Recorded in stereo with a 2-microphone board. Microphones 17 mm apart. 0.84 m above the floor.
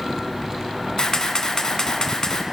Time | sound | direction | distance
1.0 | a camera shutter | 50° left (ahead or behind) | 1.5 m